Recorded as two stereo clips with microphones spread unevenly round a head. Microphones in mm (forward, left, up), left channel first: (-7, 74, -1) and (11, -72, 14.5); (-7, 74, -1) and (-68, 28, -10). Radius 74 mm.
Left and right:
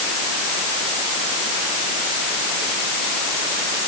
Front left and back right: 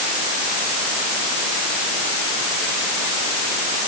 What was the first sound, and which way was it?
Only background noise.